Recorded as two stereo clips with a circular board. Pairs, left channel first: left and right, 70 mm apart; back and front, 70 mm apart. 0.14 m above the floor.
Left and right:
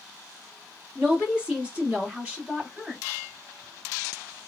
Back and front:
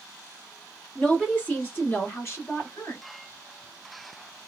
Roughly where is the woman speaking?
Behind right.